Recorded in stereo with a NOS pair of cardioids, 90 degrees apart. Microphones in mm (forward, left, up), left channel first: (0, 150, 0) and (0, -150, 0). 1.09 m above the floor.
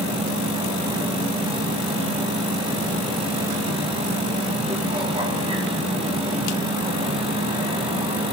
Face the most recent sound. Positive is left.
turn(degrees=-20)